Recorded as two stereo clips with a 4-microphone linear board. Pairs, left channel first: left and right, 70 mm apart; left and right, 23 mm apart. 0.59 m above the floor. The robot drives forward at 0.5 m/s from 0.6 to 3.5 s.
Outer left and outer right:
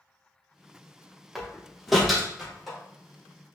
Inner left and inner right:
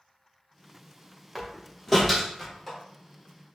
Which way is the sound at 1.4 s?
Centre (ahead or behind).